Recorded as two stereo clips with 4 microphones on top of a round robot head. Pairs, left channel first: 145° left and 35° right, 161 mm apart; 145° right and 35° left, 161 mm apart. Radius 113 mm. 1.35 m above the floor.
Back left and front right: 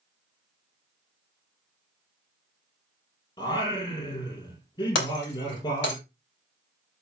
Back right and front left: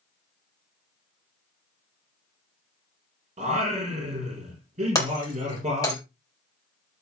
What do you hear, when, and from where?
3.4 s singing: 80° left, 5 m
5.0 s breaking glass: 145° left, 4 m